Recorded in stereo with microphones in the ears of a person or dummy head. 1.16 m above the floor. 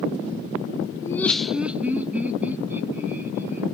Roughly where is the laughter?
Centre.